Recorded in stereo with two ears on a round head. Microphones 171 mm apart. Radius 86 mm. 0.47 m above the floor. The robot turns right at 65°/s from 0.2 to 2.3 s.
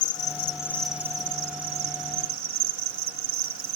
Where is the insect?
135° left, 1.3 m; by 3.8 s 85° right, 1.3 m.